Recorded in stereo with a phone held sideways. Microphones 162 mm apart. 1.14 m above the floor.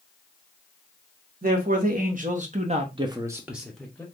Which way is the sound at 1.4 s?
55° right (ahead or behind).